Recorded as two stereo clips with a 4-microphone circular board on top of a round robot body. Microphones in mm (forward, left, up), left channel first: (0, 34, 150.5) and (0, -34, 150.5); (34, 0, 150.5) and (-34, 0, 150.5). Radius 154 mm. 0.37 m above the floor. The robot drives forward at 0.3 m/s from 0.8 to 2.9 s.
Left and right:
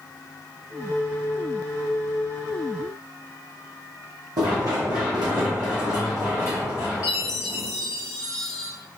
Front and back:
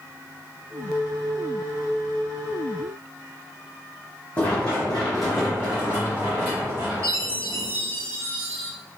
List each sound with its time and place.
4.4 s running footsteps: 70° right, 1.2 m; by 7.7 s 135° right, 1.9 m
7.0 s a chime: 125° left, 0.6 m